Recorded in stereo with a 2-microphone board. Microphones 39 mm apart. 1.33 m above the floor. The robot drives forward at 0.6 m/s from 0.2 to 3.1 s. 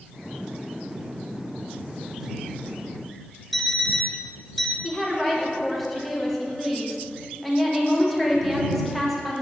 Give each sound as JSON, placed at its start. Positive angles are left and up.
{"t": 3.5, "sound": "an alarm clock", "side_deg": 5, "distance_m": 0.6}
{"t": 4.8, "sound": "a woman speaking", "side_deg": 5, "distance_m": 1.1}